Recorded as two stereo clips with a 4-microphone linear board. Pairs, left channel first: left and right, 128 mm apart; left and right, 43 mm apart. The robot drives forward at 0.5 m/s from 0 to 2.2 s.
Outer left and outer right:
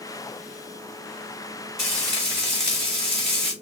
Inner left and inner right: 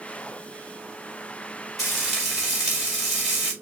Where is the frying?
Centre (ahead or behind), 3.5 m.